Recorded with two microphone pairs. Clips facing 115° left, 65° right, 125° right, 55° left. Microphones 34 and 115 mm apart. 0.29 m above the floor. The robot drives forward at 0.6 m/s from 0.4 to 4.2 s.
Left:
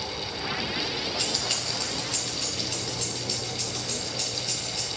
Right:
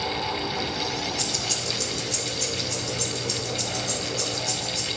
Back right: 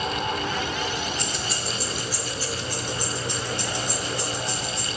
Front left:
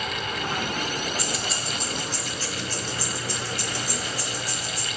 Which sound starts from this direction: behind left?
Keys jangling, at 1.2 s.